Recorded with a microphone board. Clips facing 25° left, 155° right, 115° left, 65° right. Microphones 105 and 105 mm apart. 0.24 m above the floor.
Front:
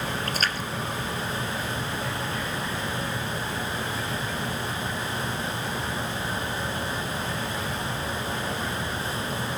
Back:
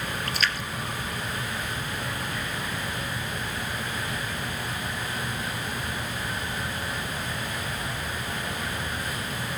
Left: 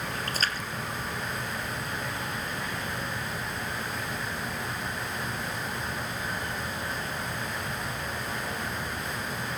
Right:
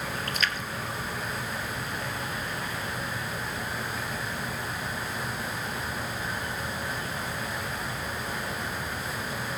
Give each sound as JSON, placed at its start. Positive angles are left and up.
{"t": 0.3, "sound": "a splash", "azimuth_deg": 65, "distance_m": 1.9}